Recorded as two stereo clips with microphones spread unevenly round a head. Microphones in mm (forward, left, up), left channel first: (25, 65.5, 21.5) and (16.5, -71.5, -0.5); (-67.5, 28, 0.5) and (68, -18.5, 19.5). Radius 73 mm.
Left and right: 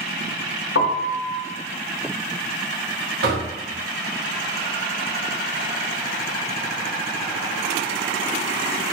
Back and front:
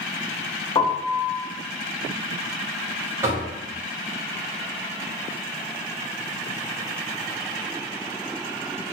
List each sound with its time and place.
0.8 s a piano: 95° left, 0.5 m
3.2 s knocking: 90° right, 1.0 m